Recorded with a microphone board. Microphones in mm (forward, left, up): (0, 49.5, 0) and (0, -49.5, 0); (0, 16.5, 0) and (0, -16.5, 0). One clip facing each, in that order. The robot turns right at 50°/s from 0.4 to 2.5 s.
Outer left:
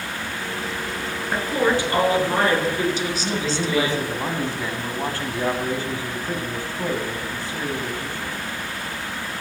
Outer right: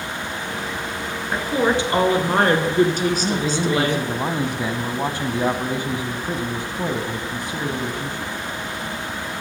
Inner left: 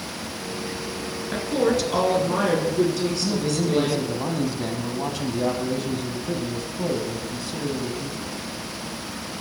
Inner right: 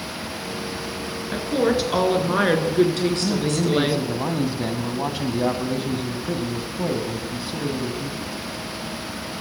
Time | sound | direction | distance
1.3 | a woman speaking | straight behind | 2 m
3.2 | a man speaking | 20° right (ahead or behind) | 1.0 m